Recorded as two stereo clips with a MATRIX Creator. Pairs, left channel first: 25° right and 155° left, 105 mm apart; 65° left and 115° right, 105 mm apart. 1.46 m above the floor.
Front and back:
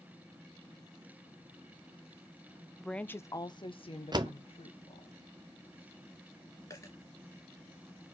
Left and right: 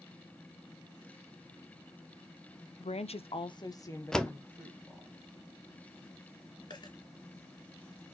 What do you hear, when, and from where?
2.8 s a woman speaking: 70° left, 0.6 m; by 5.1 s 15° right, 1.7 m
4.1 s a door slam: 150° left, 0.7 m
6.7 s a dropped coin: 35° left, 2.5 m